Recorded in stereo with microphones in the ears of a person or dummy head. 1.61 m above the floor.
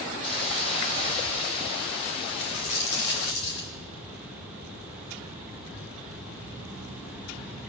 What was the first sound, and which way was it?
A hiss, 35° left (ahead or behind).